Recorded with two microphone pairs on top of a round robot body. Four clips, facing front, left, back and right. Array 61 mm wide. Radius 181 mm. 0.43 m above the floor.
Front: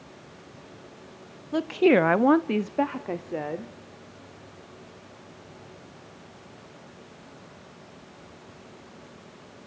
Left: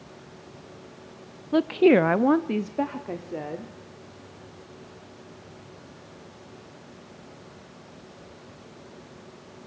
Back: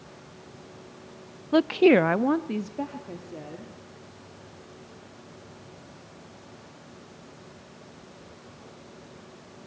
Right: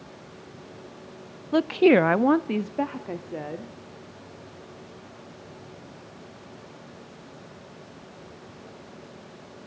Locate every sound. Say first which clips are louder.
1.5 s a woman speaking: even, back 2 dB; 160° right, 0.8 m; by 3.7 s straight ahead, 1.9 m